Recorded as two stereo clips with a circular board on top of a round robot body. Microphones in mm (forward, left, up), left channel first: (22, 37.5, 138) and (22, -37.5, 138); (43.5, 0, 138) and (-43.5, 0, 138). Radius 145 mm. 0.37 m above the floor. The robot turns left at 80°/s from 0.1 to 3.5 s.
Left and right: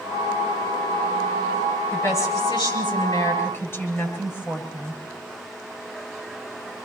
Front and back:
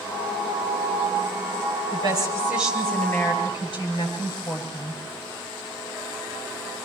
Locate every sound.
1.9 s a woman speaking: 160° left, 9.5 m; by 5.0 s 35° left, 9.5 m